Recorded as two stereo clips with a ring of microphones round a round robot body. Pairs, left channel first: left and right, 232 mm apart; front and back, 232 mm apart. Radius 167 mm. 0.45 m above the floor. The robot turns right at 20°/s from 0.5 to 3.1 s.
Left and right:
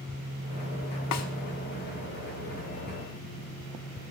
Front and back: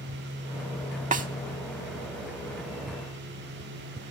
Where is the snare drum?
120° left, 0.6 m; by 1.3 s 125° left, 0.6 m.